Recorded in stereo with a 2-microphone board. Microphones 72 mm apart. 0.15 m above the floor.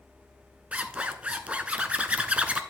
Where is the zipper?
15° right (ahead or behind), 0.7 m.